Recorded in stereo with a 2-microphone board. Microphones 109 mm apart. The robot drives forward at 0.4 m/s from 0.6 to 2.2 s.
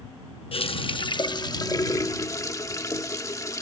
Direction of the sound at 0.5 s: 60° left (ahead or behind).